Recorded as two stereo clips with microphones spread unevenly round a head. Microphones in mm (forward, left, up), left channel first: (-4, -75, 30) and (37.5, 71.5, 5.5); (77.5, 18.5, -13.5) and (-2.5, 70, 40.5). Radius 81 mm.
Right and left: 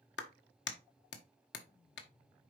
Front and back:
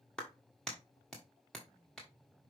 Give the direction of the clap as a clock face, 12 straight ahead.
4 o'clock.